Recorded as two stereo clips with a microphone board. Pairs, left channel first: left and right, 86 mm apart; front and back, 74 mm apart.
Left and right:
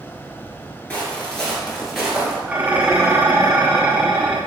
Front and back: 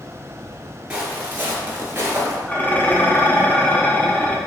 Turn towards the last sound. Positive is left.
turn(degrees=-35)